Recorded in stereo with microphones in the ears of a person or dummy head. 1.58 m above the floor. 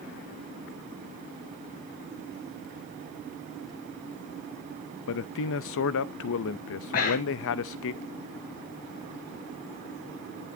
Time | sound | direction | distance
5.1 | a man speaking | 75° left (ahead or behind) | 0.5 m
6.9 | breathing | 50° left (ahead or behind) | 1.0 m